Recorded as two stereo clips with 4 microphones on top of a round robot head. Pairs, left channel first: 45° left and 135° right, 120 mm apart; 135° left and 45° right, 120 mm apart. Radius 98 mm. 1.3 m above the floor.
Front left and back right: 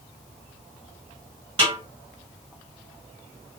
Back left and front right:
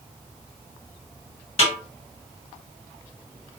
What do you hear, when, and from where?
1.6 s a snare drum: straight behind, 2 m